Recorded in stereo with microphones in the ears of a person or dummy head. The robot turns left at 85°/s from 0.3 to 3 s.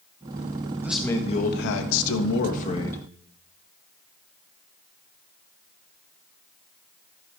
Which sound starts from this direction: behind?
A man speaking, at 0.8 s.